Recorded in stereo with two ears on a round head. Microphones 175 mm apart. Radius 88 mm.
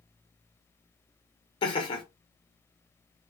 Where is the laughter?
25° left (ahead or behind), 1.0 m.